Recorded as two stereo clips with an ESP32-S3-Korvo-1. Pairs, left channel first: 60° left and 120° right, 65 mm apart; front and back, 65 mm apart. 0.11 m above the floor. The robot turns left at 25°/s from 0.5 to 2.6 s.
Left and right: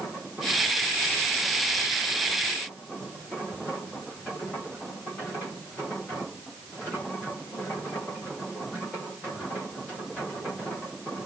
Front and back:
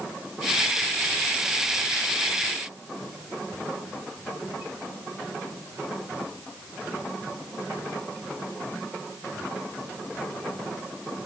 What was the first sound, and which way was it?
Only background noise.